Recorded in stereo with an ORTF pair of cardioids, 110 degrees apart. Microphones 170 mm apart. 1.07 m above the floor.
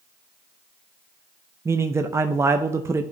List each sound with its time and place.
1.6 s a man speaking: 15° right, 0.5 m